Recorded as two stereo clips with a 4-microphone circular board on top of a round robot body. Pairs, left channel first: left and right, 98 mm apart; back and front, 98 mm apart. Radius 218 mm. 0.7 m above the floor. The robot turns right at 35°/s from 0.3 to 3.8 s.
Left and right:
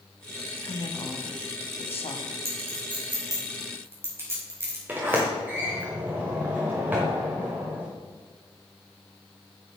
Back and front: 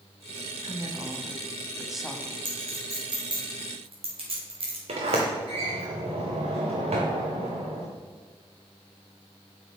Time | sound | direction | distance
0.6 | a woman speaking | 40° left | 1.5 m
2.5 | a clink | 70° right | 3 m
4.9 | a sliding door | 15° right | 0.6 m